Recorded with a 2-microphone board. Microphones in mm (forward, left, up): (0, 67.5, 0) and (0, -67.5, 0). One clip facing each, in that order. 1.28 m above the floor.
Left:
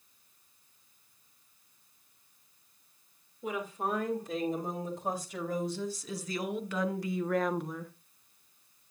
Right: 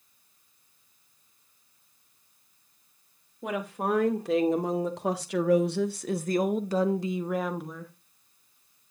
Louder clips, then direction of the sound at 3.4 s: Right 4 dB; 75° right (ahead or behind).